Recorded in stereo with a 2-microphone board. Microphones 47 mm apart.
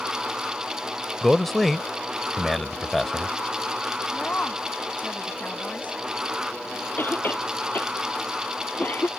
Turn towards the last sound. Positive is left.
turn(degrees=50)  # may be behind; listen again after turning